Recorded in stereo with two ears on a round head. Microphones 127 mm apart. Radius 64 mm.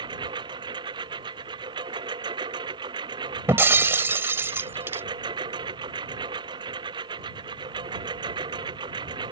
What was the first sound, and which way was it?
A lawn mower, 35° right (ahead or behind).